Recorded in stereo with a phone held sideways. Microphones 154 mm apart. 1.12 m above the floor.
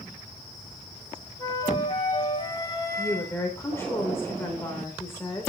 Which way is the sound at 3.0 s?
15° left (ahead or behind).